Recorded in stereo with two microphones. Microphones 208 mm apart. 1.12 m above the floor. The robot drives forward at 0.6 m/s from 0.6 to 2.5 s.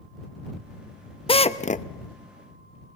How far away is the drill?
About 0.8 m.